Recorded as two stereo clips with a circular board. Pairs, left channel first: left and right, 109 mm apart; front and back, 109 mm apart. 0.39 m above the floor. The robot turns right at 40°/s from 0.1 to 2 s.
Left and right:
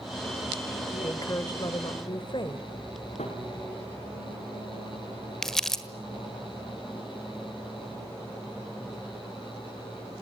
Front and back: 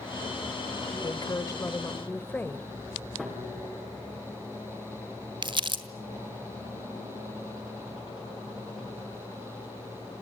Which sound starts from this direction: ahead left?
A woman speaking, at 1.0 s.